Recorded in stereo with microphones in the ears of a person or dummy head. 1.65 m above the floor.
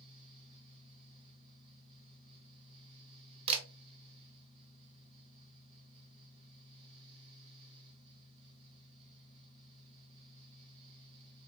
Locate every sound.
0.0 s a fan: 30° right (ahead or behind), 2.5 m
3.5 s a camera shutter: 30° right (ahead or behind), 0.7 m